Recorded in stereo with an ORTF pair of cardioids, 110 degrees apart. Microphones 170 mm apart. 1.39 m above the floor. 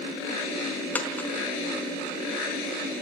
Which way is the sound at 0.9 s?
10° left.